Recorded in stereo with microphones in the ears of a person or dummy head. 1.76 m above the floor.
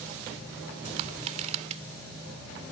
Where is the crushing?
45° right (ahead or behind).